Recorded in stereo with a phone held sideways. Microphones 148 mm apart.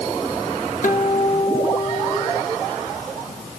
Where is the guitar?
65° left (ahead or behind), 2.5 m.